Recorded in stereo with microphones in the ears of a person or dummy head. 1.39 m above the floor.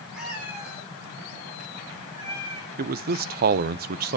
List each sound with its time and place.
0.1 s a cat meowing: 5° right (ahead or behind), 3.5 m; by 2.7 s 20° right (ahead or behind), 4.5 m
2.8 s a man speaking: 50° right (ahead or behind), 0.5 m